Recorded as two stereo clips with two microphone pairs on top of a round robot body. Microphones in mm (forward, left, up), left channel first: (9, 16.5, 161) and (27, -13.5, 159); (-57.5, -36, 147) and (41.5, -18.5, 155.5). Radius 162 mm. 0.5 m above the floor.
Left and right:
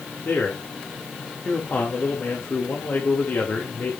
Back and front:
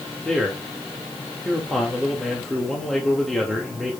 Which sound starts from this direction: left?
A man speaking, at 0.2 s.